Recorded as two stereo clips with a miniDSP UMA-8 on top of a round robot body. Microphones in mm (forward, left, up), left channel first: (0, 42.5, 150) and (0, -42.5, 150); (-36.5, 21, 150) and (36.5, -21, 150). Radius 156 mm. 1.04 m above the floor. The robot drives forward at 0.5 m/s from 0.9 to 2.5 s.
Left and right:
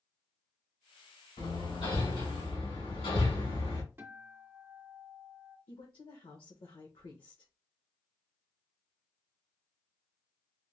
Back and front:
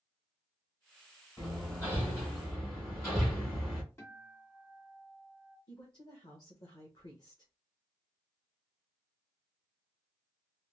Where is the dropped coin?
No dropped coin in this recording.